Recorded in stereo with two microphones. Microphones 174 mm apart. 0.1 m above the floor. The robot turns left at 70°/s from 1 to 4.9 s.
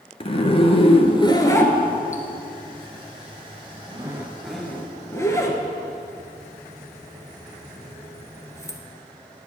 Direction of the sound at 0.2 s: 35° left (ahead or behind).